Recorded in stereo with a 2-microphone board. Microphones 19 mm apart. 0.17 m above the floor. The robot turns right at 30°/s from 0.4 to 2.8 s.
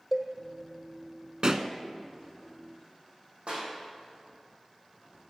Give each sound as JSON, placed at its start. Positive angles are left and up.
{"t": 0.1, "sound": "a cowbell", "side_deg": -5, "distance_m": 2.0}
{"t": 1.4, "sound": "a pop", "side_deg": -45, "distance_m": 0.8}
{"t": 3.5, "sound": "a clap", "side_deg": -80, "distance_m": 5.5}